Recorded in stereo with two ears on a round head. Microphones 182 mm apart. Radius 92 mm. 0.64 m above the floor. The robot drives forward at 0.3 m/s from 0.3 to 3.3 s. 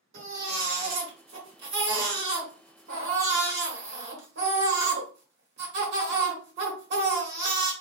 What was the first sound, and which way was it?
A baby crying, 60° right (ahead or behind).